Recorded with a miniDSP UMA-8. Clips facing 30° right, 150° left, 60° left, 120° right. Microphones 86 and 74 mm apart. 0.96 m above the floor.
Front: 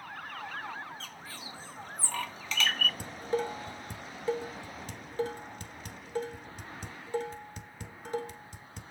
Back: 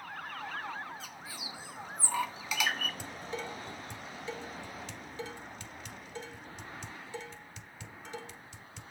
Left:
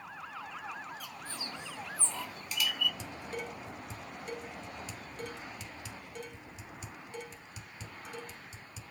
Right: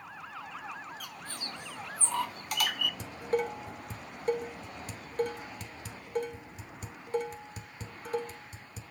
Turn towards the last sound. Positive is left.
turn(degrees=-75)